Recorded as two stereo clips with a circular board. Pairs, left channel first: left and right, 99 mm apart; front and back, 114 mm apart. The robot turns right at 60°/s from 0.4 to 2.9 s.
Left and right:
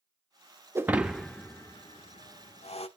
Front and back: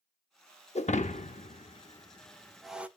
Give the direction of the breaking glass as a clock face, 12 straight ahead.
1 o'clock.